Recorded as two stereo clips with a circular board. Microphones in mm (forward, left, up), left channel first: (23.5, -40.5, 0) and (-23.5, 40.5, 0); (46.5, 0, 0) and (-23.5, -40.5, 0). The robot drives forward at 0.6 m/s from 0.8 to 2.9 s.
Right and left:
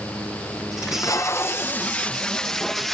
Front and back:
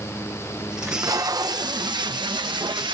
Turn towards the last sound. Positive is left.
turn(degrees=-145)